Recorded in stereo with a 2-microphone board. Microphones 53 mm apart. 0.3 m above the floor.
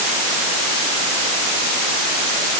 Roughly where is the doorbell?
I don't hear a doorbell.